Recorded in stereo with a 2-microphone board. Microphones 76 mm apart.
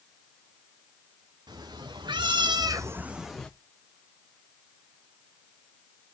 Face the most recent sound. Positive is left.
turn(degrees=5)  # may be behind; listen again after turning